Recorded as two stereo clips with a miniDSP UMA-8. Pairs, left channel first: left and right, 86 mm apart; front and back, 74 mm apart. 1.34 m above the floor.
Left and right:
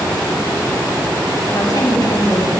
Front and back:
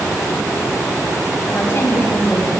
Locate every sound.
1.5 s a woman speaking: 55° left, 7 m